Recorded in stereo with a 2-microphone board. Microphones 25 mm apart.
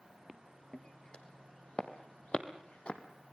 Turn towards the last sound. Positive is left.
turn(degrees=45)  # may be behind; listen again after turning